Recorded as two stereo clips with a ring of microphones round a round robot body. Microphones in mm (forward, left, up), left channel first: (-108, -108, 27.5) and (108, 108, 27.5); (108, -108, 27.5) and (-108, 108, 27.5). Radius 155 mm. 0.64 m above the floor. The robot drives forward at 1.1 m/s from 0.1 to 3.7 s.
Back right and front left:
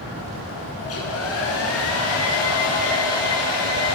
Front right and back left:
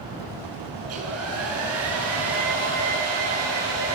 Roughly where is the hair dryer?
Behind.